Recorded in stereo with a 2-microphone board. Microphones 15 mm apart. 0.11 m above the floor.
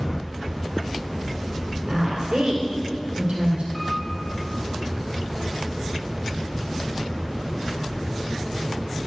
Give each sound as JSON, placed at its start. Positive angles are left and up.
{"t": 1.9, "sound": "a woman speaking", "side_deg": -55, "distance_m": 2.5}
{"t": 3.7, "sound": "a piano", "side_deg": 20, "distance_m": 2.0}